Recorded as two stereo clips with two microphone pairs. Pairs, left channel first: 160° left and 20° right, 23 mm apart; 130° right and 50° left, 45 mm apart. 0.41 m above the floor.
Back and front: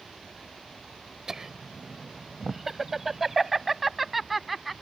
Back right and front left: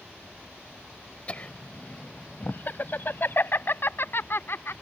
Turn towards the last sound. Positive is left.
turn(degrees=-105)